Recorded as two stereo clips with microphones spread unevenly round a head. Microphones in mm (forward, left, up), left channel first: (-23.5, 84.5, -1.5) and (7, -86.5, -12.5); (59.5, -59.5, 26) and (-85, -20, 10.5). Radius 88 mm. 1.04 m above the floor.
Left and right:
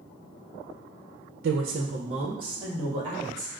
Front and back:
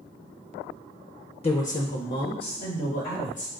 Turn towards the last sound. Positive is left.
turn(degrees=-10)